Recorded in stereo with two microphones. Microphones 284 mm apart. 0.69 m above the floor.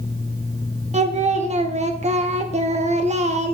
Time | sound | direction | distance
0.9 | singing | 25° right (ahead or behind) | 0.9 m